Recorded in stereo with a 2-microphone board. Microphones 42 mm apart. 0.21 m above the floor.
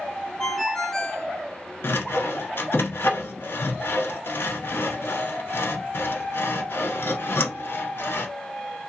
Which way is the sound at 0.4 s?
15° left (ahead or behind).